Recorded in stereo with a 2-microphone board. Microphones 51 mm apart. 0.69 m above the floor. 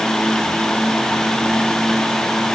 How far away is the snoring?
No snoring in this recording.